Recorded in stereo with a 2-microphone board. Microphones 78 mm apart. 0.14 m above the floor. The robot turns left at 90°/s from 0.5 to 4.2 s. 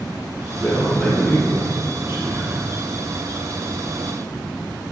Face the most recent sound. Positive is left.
turn(degrees=90)